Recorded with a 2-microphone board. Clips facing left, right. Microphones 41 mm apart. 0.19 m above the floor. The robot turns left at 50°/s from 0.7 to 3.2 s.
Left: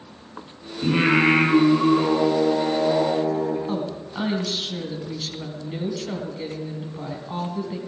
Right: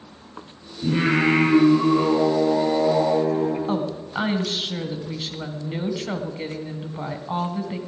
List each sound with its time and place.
0.8 s singing: 70° left, 4 m; by 3.6 s 45° right, 4 m
3.7 s a woman speaking: 30° right (ahead or behind), 1.5 m